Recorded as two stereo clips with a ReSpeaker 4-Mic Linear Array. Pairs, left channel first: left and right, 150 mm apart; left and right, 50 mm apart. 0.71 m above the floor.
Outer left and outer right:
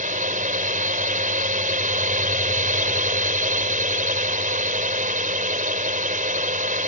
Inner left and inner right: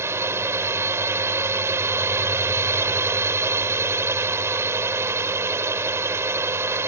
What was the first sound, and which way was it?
A drone, 55° right (ahead or behind).